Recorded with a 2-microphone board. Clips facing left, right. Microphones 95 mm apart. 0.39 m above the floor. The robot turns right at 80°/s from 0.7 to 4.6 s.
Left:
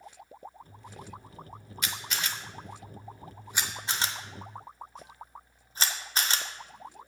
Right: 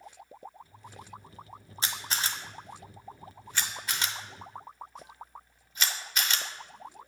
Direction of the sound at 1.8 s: 30° right (ahead or behind).